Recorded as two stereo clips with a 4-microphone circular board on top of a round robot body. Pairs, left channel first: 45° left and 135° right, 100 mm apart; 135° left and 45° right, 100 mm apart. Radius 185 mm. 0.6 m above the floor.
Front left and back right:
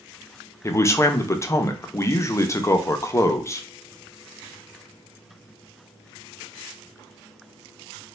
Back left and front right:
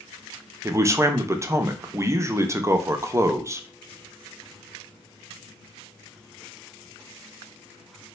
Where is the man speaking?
Straight ahead, 0.7 m.